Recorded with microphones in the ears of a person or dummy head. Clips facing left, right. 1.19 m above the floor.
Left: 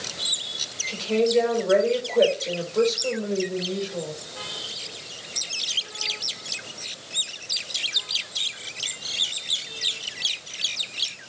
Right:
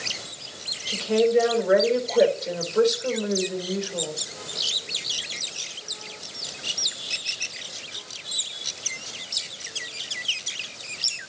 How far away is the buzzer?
I don't hear a buzzer.